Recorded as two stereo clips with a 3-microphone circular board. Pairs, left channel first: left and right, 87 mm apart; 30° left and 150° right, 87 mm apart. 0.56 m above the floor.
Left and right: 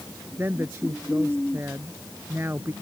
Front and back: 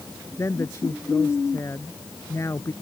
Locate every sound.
0.4 s a woman speaking: 25° right